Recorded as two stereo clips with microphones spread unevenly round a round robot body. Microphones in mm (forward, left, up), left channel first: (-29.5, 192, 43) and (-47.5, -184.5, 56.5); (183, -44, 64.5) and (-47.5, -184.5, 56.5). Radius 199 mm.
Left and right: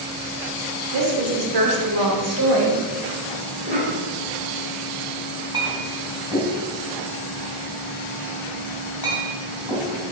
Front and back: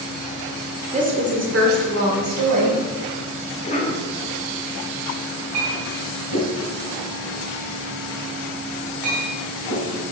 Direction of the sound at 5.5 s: 170° right.